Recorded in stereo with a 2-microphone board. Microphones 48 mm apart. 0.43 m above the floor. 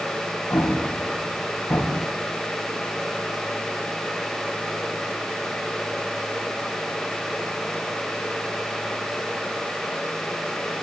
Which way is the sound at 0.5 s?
70° left (ahead or behind).